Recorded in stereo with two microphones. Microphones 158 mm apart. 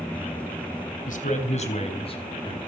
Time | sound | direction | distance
1.1 | a man speaking | 55° left (ahead or behind) | 3 m